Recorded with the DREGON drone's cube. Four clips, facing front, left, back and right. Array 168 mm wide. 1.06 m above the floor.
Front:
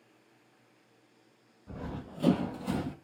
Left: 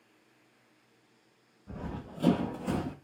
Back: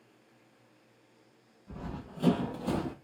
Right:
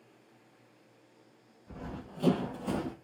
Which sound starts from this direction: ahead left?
Running footsteps, at 1.7 s.